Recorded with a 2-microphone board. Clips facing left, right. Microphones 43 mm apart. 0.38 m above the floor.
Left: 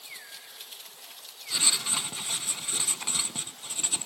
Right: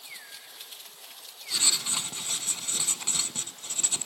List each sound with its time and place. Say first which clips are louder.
1.5 s writing: left 1 dB; 10° left (ahead or behind), 0.6 m